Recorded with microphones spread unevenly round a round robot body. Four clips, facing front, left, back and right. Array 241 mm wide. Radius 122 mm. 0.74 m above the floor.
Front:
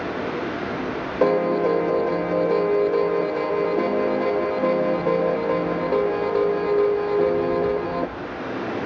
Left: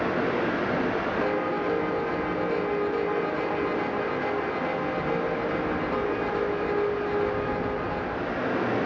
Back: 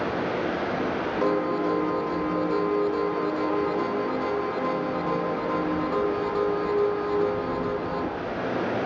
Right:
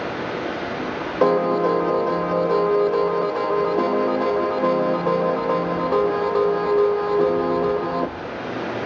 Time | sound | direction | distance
0.0 | running water | 70° left | 9.5 m
1.2 | a piano | 40° right | 0.9 m